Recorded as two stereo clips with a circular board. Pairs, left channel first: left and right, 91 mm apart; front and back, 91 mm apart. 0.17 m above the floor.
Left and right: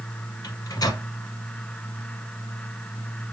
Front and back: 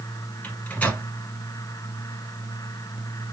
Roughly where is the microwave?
Left.